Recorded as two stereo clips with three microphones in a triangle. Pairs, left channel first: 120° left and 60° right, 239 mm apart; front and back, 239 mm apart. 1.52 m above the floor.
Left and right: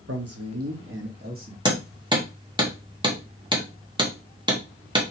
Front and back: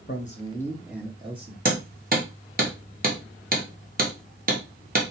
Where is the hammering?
130° right, 1.1 m.